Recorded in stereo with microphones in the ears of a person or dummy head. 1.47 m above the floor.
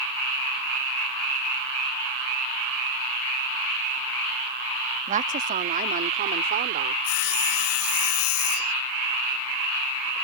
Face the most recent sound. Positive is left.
turn(degrees=60)  # may be behind; listen again after turning